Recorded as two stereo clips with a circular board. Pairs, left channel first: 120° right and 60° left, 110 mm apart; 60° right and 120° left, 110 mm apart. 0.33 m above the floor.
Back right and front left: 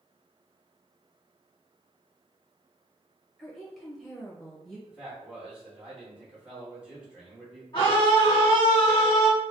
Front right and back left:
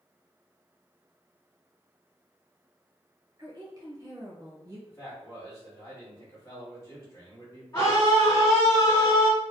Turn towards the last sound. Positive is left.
turn(degrees=-110)